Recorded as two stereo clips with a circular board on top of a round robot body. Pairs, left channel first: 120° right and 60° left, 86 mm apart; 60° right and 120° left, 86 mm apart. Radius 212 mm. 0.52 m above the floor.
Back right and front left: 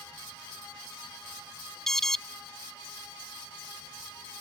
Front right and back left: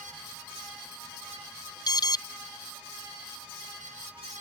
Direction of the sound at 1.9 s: 35° right.